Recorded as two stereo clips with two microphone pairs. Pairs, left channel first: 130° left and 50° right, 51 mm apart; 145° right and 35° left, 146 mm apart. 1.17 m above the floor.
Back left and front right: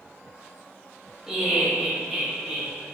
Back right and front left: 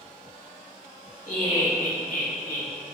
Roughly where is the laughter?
Behind right.